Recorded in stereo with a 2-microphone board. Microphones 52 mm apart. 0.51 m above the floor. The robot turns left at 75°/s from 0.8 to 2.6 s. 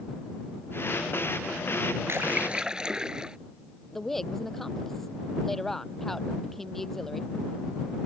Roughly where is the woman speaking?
Centre.